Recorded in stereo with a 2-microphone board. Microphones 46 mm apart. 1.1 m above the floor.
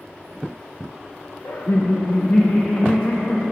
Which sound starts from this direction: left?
Laughter, at 1.4 s.